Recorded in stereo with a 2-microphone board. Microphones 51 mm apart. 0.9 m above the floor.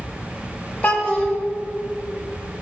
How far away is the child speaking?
About 1.2 m.